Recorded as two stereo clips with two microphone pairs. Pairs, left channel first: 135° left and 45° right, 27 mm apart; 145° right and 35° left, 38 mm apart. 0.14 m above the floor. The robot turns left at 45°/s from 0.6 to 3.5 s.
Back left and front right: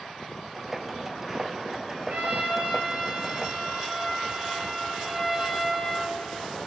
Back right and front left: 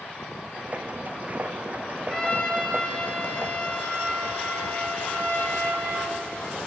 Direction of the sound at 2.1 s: 65° right.